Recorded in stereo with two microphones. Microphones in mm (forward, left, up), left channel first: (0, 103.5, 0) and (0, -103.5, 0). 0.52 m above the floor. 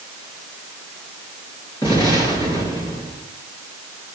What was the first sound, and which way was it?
An explosion, 20° left (ahead or behind).